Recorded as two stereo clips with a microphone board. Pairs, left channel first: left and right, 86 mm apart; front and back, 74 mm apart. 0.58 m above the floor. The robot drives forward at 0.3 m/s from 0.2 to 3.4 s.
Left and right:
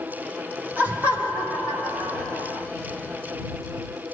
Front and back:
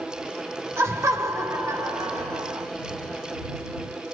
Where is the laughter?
150° right, 1.8 m; by 2.7 s 160° right, 2.5 m.